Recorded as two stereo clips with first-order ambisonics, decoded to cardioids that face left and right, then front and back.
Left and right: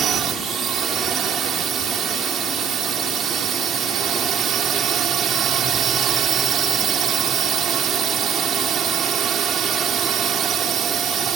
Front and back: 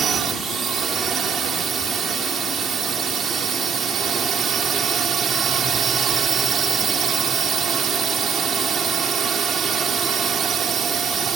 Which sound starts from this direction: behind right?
A drone, at 0.0 s.